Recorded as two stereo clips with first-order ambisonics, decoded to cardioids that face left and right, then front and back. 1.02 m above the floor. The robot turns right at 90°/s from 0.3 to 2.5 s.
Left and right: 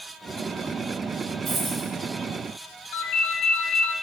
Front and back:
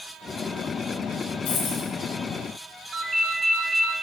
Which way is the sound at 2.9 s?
105° left.